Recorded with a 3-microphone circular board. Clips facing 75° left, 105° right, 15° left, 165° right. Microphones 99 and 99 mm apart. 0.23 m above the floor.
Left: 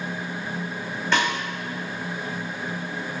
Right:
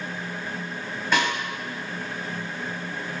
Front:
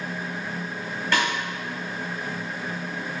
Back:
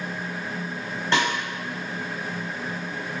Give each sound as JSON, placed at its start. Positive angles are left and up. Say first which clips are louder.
{"t": 1.1, "sound": "a snare drum", "louder": "even, back 1 dB", "azimuth_deg": 180, "distance_m": 1.3}